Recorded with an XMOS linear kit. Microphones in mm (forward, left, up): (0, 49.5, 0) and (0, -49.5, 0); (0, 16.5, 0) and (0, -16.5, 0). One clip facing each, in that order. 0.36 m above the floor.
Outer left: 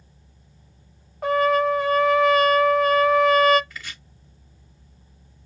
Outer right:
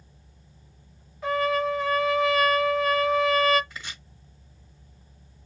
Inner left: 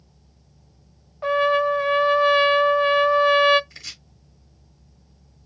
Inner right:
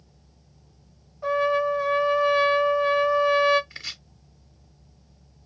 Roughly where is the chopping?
Right.